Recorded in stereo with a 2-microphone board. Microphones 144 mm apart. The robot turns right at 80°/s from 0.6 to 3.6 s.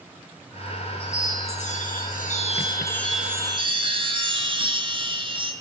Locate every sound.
1.0 s a chime: 10° left, 3.5 m; by 5.5 s 140° right, 3.5 m